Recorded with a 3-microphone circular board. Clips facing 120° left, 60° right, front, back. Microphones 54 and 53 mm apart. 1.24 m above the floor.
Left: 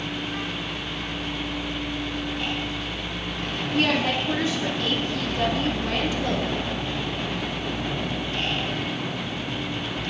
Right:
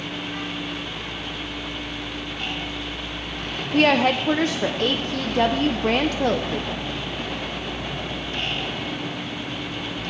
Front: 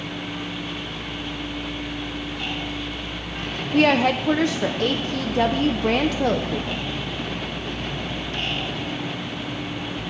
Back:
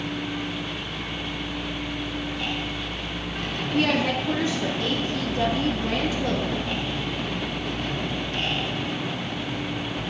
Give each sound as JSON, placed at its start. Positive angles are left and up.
{"t": 3.7, "sound": "a woman speaking", "azimuth_deg": -25, "distance_m": 0.8}